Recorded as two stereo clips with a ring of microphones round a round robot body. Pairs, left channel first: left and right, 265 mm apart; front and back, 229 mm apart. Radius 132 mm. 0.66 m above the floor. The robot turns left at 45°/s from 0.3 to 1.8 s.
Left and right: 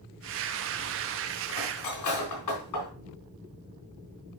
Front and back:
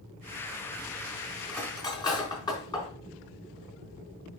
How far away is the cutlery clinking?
About 4 m.